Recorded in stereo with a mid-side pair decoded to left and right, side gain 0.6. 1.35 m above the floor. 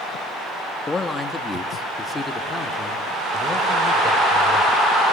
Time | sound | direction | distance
0.9 | a man speaking | 20° left | 2.5 m